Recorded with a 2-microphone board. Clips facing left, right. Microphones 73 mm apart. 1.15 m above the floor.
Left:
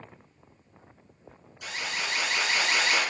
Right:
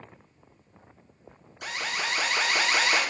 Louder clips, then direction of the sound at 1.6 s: Right 2 dB; 50° right (ahead or behind).